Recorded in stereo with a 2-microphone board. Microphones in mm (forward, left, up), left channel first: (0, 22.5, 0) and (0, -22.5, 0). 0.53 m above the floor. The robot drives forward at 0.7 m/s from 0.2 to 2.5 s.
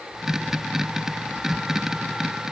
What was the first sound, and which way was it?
Only background noise.